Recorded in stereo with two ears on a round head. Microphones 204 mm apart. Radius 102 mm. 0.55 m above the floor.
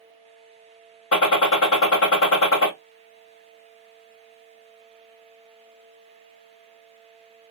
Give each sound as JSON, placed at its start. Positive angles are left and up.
{"t": 1.1, "sound": "a gunshot", "side_deg": 65, "distance_m": 1.6}